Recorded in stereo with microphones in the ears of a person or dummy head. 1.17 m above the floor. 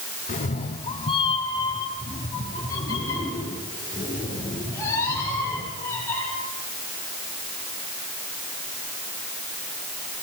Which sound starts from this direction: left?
A cat meowing, at 0.3 s.